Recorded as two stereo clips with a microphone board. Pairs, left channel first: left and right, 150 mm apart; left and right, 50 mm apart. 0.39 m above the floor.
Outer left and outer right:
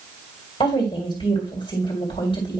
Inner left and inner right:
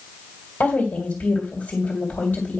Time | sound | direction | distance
0.6 | a woman speaking | 40° left (ahead or behind) | 2 m